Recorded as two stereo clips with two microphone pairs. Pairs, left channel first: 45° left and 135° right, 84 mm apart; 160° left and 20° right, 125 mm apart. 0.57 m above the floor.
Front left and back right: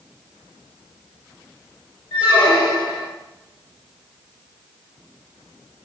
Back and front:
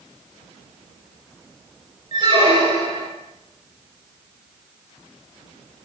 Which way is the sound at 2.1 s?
30° left.